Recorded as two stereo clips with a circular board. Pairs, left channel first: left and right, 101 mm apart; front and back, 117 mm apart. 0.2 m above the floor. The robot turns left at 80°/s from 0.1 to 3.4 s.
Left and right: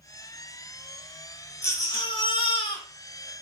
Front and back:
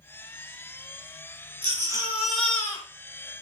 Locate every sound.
1.6 s a baby crying: 145° left, 0.8 m; by 2.9 s 50° left, 0.8 m